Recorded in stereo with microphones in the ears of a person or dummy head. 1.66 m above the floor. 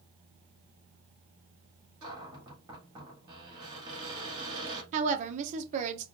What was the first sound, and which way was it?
A cupboard door, 25° right (ahead or behind).